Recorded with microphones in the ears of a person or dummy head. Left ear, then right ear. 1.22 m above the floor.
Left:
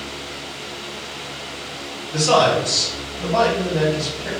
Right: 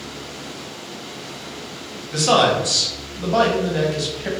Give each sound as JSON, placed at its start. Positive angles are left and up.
{"t": 2.1, "sound": "a man speaking", "side_deg": -55, "distance_m": 1.0}